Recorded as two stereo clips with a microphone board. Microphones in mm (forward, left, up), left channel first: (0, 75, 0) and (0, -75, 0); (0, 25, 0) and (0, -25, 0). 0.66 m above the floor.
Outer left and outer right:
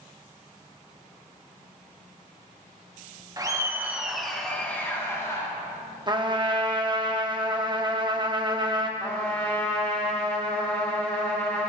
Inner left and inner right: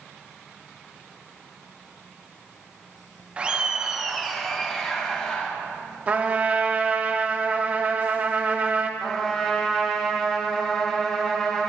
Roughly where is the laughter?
Right.